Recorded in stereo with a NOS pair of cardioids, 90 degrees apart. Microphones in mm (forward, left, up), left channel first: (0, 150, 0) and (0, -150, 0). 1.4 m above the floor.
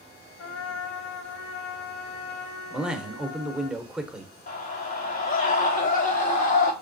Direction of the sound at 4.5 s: 30° left.